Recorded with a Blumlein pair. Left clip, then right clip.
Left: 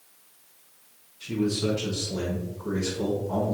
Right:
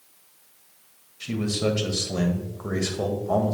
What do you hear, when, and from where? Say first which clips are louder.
1.2 s a man speaking: right 1 dB; 35° right, 1.7 m